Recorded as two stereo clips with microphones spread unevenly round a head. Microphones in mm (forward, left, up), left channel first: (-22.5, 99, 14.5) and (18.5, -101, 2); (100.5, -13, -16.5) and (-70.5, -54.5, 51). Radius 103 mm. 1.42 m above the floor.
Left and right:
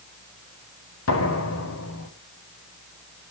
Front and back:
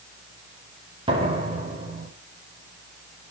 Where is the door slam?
130° left, 4.5 m.